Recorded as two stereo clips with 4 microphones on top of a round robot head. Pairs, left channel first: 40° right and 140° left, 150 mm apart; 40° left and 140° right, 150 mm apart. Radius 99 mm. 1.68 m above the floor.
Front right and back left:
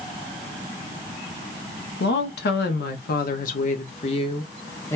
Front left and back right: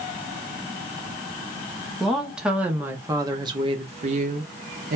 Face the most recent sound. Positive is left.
turn(degrees=-115)